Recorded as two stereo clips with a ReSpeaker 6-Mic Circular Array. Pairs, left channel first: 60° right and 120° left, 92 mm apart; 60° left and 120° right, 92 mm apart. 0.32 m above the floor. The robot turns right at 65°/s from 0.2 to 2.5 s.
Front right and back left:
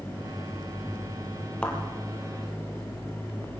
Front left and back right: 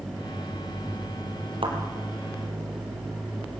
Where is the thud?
140° right, 3.5 m; by 1.8 s 130° right, 3.5 m.